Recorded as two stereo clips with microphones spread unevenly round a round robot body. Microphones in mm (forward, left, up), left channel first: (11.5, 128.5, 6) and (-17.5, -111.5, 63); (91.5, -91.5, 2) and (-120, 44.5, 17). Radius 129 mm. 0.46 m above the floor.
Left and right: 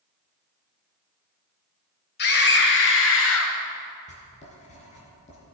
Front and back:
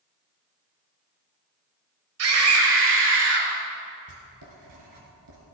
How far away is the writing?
About 3 m.